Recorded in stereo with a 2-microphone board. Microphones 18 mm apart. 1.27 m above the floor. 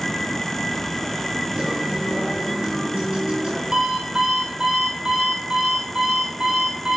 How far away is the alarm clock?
About 7.5 m.